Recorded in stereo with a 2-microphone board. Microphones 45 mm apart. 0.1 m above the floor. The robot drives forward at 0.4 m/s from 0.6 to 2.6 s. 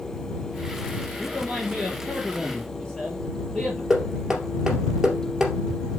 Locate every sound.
1.2 s a man speaking: 20° left (ahead or behind), 1.9 m; by 3.8 s 15° left (ahead or behind), 2 m
3.9 s knocking: 10° right (ahead or behind), 2 m